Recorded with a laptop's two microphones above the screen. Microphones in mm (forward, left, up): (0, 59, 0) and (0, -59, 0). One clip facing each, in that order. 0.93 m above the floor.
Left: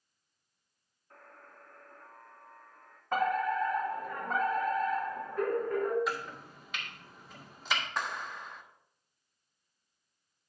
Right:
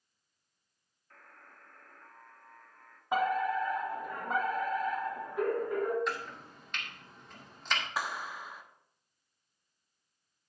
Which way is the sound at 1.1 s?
25° left (ahead or behind).